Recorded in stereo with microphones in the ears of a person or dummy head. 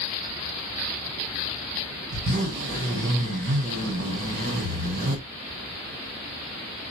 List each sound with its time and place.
2.1 s a zipper: 50° right (ahead or behind), 1.9 m